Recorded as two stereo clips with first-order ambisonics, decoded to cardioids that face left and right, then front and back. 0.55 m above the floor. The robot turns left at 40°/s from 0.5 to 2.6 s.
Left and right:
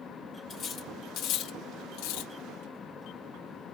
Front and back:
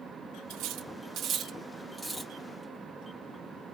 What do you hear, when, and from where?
0.5 s cutlery clinking: 155° left, 0.6 m; by 2.3 s 85° left, 0.6 m